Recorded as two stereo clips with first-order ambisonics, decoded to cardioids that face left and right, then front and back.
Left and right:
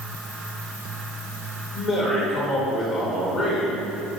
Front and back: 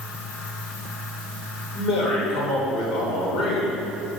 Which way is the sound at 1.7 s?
30° left.